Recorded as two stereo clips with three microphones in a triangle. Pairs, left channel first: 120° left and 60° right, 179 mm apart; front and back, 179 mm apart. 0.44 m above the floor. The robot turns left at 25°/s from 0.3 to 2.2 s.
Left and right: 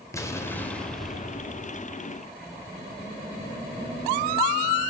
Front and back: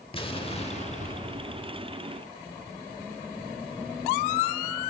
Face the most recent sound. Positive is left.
turn(degrees=0)